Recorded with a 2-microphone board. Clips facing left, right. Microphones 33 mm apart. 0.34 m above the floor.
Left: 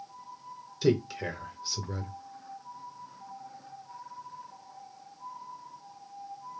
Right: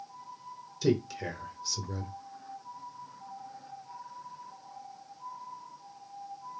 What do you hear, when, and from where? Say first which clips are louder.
0.8 s a man speaking: left 2 dB; 20° left (ahead or behind), 0.9 m